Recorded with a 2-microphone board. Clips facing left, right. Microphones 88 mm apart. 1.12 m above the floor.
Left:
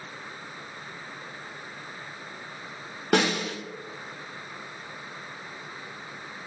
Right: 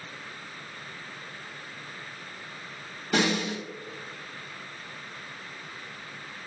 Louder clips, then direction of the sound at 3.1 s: Left 2 dB; 65° left (ahead or behind).